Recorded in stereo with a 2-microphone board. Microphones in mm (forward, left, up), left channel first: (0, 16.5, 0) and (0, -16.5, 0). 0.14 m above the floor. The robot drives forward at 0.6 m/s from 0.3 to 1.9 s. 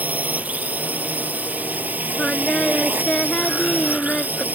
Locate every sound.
0.0 s a drone: 55° right (ahead or behind); by 4.5 s 60° right (ahead or behind)
2.2 s singing: 25° left (ahead or behind)